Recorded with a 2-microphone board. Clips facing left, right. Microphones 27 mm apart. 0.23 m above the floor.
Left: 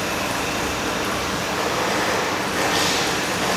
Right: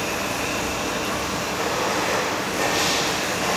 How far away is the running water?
About 1.6 m.